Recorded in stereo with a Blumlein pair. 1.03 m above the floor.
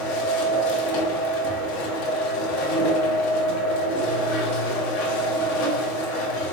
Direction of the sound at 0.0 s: 45° left.